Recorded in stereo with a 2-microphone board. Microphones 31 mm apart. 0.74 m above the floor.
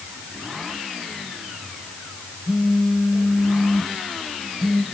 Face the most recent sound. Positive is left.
turn(degrees=0)  # may be behind; listen again after turning